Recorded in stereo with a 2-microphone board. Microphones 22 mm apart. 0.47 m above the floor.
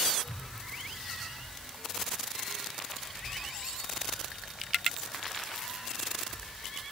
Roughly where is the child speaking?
Right.